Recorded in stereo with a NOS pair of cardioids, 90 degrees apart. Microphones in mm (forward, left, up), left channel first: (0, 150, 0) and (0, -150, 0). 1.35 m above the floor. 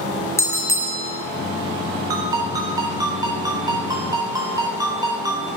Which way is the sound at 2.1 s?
10° right.